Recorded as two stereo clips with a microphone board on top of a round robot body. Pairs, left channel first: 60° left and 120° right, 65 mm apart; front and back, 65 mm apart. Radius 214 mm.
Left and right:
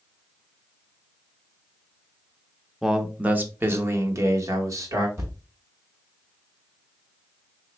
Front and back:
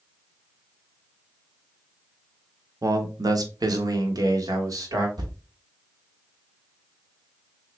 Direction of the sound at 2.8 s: 155° left.